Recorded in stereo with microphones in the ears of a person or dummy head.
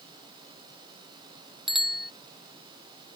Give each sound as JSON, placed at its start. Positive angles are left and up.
{"t": 1.7, "sound": "a bicycle bell", "side_deg": 0}